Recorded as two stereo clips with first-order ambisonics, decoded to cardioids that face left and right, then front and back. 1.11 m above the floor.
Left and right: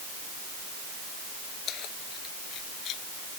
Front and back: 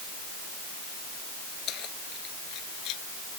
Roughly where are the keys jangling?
Ahead left.